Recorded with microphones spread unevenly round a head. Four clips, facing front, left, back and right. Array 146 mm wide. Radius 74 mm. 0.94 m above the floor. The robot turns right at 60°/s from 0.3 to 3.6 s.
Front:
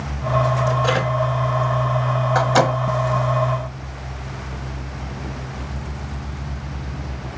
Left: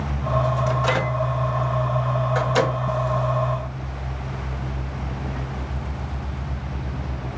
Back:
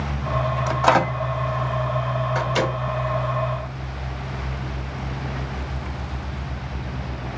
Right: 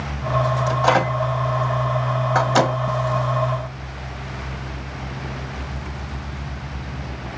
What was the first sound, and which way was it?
A microwave, 165° right.